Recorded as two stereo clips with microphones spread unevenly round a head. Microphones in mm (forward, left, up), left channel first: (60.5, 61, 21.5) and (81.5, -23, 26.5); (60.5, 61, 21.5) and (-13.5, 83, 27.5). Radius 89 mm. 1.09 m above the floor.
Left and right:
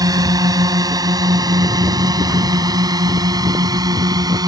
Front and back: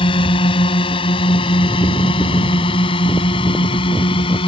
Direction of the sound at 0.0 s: 30° right.